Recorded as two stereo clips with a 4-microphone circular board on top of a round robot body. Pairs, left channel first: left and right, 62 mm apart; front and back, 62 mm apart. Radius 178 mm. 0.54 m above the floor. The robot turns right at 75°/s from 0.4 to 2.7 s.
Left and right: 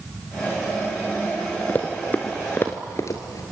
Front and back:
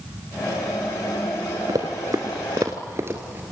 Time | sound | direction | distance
1.7 | running footsteps | 150° left | 0.6 m